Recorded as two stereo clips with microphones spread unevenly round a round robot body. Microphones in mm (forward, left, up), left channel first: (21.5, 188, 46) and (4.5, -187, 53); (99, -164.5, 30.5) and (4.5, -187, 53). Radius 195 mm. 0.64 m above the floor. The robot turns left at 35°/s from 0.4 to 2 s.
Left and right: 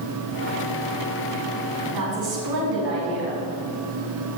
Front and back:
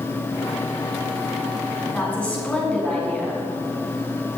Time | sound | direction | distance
1.9 | a woman speaking | 60° right | 5.5 m